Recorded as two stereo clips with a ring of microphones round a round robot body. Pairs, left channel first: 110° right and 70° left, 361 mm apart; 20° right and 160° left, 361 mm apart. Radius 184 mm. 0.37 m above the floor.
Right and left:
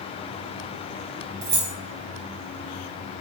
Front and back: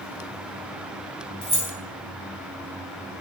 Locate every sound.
1.4 s keys jangling: 55° left, 1.3 m